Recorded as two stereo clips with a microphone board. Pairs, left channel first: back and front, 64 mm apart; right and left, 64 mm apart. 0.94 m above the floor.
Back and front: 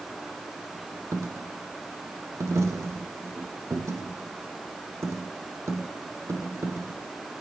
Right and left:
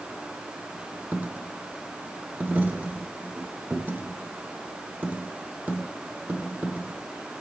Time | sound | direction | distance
1.1 | a dropped coin | 30° left | 1.1 m